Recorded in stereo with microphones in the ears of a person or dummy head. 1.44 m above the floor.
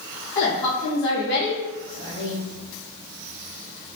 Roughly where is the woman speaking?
Left.